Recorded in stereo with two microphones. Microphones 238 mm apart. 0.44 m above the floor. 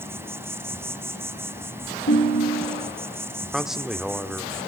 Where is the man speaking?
Centre (ahead or behind), 0.9 m.